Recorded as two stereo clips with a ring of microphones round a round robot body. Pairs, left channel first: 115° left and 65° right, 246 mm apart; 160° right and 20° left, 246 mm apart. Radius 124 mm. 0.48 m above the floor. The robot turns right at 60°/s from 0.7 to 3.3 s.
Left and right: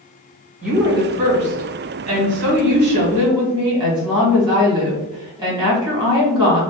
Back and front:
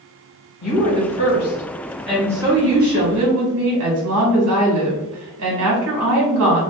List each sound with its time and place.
0.6 s a woman speaking: 155° right, 1.8 m; by 6.6 s straight ahead, 1.8 m